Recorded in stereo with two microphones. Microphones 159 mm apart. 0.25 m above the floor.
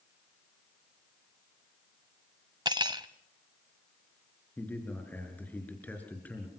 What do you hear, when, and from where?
2.6 s cutlery clinking: 30° right (ahead or behind), 0.7 m
4.6 s a man speaking: 10° left (ahead or behind), 4.5 m